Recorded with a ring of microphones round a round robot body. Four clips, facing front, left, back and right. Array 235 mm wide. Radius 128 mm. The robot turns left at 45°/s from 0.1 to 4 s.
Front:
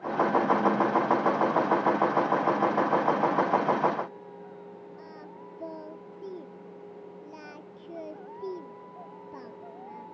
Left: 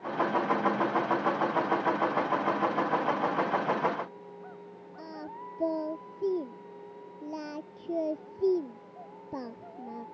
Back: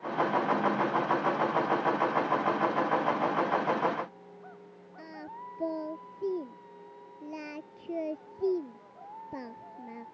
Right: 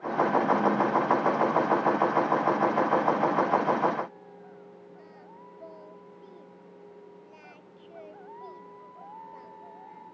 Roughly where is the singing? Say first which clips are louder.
Left 7 dB, back 1 dB; behind left.